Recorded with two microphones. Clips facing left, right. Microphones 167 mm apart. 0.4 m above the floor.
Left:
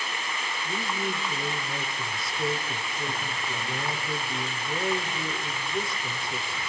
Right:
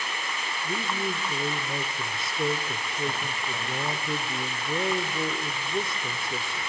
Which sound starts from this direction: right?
A man speaking, at 0.6 s.